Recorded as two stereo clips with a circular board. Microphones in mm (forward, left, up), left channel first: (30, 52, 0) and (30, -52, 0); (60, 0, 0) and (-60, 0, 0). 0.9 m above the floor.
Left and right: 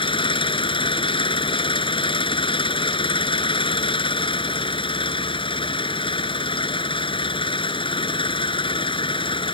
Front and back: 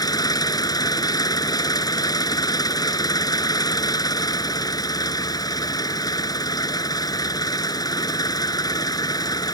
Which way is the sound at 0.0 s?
55° left.